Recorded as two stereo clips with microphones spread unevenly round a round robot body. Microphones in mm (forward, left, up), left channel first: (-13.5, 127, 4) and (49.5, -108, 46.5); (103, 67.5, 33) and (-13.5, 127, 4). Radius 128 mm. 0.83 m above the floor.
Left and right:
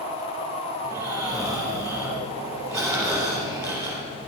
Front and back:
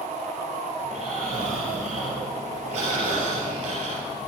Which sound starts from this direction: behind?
Snoring, at 0.8 s.